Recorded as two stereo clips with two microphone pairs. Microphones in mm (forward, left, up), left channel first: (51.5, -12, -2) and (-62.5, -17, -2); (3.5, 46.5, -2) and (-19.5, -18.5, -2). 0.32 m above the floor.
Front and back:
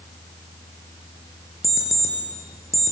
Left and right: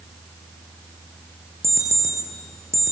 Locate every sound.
1.6 s an alarm clock: 60° right, 4.5 m